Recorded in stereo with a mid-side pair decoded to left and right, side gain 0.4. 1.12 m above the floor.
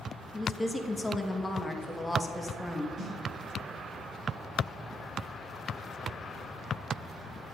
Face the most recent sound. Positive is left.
turn(degrees=-70)